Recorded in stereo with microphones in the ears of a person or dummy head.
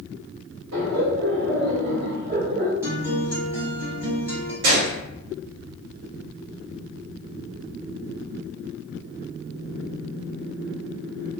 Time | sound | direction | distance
0.7 | laughter | 70° right (ahead or behind) | 1.3 m
2.8 | a guitar | 15° right (ahead or behind) | 1.1 m
4.6 | a gunshot | 60° right (ahead or behind) | 1.1 m